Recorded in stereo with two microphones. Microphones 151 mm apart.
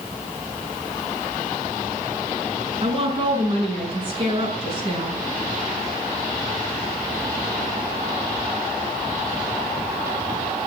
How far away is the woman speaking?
About 6 m.